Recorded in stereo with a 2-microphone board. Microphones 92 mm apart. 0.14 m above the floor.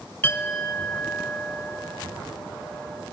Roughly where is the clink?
Left.